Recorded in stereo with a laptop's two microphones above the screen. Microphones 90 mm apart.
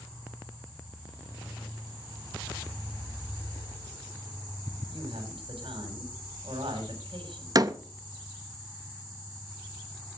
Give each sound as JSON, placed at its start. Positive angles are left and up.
{"t": 4.9, "sound": "a woman speaking", "side_deg": -70, "distance_m": 6.5}
{"t": 7.5, "sound": "a door slam", "side_deg": -45, "distance_m": 0.8}